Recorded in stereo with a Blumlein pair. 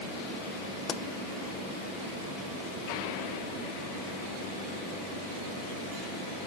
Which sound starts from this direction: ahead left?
A pop, at 0.9 s.